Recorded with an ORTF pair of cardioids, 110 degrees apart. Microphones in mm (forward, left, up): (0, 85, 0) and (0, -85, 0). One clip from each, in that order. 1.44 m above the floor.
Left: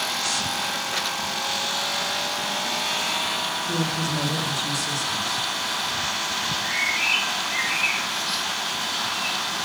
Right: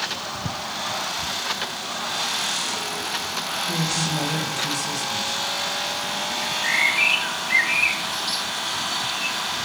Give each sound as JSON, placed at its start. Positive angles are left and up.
{"t": 3.7, "sound": "a woman speaking", "azimuth_deg": -20, "distance_m": 2.0}
{"t": 6.4, "sound": "a bird", "azimuth_deg": -65, "distance_m": 1.9}